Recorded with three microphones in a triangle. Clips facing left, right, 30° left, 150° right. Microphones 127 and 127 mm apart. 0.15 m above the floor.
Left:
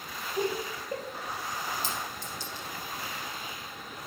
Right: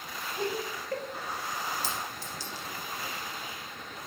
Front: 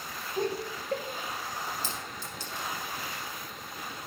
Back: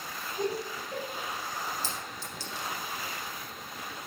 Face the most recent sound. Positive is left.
turn(degrees=60)